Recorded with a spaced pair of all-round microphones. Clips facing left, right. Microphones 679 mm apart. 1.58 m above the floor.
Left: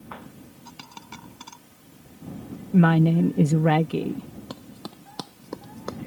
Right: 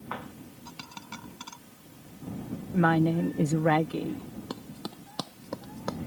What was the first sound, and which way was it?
A dropped coin, 15° right (ahead or behind).